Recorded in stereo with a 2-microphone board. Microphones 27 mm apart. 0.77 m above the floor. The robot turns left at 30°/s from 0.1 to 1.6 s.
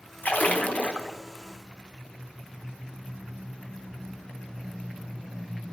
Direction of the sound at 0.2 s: 75° left (ahead or behind).